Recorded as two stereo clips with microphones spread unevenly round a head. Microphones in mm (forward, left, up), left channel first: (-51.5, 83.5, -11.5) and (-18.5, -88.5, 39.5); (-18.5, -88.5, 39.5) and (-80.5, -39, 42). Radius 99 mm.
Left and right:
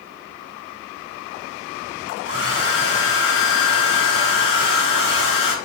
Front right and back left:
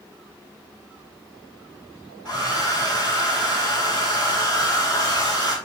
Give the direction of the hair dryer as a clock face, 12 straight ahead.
10 o'clock.